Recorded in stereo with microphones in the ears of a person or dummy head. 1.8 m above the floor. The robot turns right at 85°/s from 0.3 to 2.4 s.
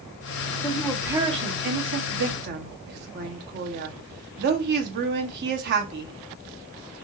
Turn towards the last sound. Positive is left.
turn(degrees=-60)